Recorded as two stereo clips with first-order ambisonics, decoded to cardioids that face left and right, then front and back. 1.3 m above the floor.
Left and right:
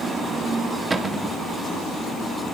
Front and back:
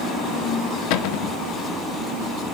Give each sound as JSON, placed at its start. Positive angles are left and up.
{"t": 0.9, "sound": "a cupboard door", "azimuth_deg": -15, "distance_m": 0.5}